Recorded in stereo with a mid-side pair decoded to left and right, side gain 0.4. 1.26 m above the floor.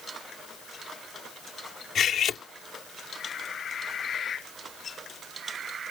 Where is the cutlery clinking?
65° left.